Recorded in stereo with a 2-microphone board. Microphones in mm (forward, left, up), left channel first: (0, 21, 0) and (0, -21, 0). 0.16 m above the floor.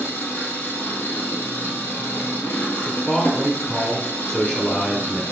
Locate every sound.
0.0 s an engine running: 70° left (ahead or behind), 1.3 m
2.9 s a man speaking: 15° left (ahead or behind), 1.4 m